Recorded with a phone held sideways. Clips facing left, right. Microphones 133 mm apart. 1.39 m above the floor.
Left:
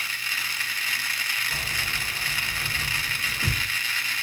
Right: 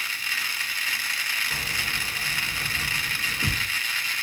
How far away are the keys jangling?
About 1.4 m.